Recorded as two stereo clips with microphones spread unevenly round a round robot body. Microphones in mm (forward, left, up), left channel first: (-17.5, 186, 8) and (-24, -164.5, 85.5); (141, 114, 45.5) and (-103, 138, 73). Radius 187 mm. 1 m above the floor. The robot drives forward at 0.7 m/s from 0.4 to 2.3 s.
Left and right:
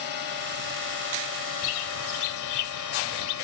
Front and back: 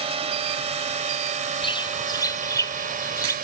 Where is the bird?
65° left; by 3.4 s 70° left.